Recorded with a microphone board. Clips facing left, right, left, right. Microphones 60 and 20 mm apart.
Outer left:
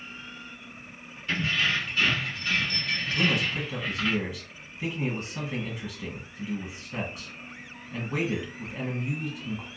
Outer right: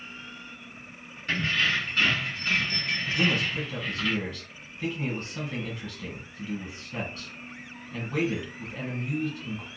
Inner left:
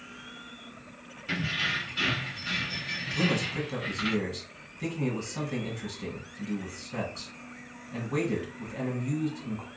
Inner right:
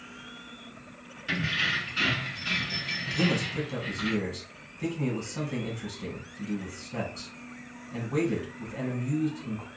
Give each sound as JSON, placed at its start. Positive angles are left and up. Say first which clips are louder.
{"t": 1.3, "sound": "keys jangling", "louder": "outer right 1 dB, inner right 2 dB", "side_deg": -50, "distance_m": 1.5}
{"t": 3.1, "sound": "a man speaking", "louder": "even, even", "side_deg": 10, "distance_m": 1.1}